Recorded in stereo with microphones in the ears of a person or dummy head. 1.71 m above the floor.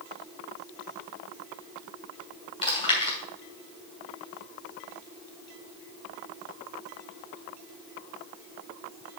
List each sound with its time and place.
2.6 s chewing: 30° left (ahead or behind), 2.5 m